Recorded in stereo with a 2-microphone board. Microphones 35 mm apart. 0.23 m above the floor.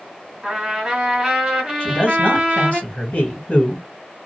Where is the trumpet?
15° right (ahead or behind), 1.5 m.